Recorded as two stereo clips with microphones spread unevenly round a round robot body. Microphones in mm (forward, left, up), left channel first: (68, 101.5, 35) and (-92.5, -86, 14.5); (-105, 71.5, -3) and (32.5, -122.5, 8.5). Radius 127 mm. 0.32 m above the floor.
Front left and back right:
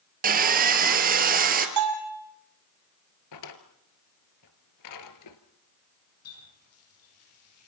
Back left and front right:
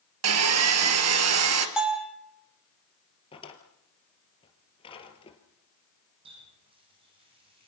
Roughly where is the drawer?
Ahead left.